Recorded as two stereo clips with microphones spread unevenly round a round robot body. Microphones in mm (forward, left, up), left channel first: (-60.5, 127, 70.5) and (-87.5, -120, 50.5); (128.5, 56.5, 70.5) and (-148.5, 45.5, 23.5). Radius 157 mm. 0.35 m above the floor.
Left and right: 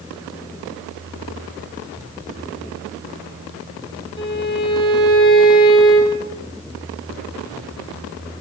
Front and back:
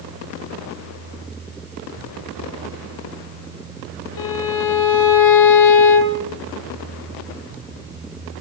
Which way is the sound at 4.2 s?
10° left.